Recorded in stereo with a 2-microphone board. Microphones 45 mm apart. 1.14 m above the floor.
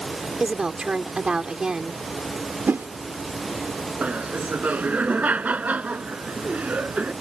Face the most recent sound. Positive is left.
turn(degrees=-35)  # may be behind; listen again after turning